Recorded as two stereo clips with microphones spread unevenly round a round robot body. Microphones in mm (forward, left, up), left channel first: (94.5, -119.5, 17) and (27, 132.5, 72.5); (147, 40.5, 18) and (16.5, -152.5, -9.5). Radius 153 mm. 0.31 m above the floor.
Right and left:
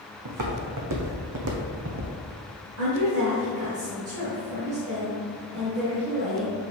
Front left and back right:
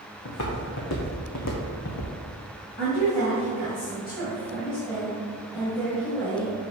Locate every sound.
0.2 s footsteps: 100° left, 1.8 m; by 2.1 s 65° left, 1.5 m
2.8 s a woman speaking: 130° left, 1.8 m